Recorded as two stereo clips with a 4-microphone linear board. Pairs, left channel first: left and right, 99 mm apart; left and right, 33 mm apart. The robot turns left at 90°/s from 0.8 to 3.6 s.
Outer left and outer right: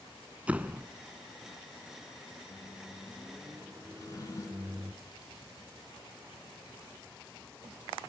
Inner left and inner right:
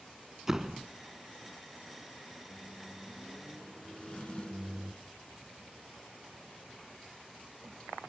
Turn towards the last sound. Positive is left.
turn(degrees=35)  # may be behind; listen again after turning